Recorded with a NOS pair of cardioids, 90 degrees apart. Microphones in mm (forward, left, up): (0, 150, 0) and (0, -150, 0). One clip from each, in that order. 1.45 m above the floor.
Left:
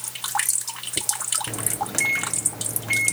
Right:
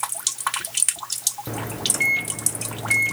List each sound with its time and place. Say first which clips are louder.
1.5 s a microwave: right 2 dB; 20° right